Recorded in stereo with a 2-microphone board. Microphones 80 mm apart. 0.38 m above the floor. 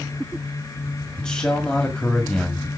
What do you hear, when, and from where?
1.2 s a man speaking: 10° left (ahead or behind), 1.7 m